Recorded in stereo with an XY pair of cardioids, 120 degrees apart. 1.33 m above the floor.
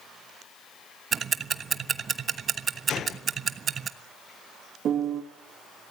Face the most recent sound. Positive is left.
turn(degrees=-50)